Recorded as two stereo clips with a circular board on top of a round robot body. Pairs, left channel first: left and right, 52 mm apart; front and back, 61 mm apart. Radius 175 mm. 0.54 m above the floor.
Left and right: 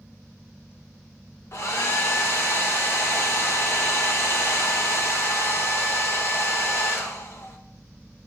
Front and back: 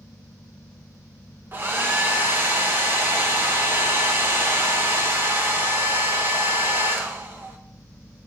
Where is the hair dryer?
125° left, 1.0 m.